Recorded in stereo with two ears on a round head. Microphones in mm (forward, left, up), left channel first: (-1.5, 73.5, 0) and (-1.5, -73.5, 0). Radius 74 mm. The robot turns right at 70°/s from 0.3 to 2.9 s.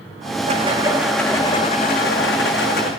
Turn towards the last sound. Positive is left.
turn(degrees=125)